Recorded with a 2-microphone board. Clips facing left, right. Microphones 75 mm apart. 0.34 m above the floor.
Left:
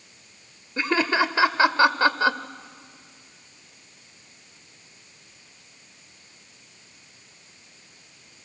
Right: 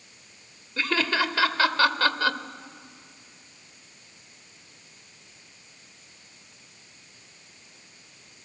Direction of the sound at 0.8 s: 20° left (ahead or behind).